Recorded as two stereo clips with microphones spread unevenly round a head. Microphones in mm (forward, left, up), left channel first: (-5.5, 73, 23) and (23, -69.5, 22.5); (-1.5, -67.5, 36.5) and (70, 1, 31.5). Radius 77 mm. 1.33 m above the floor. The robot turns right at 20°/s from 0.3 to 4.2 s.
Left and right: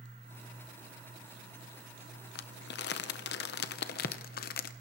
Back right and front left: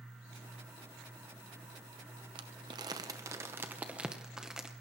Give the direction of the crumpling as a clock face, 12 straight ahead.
9 o'clock.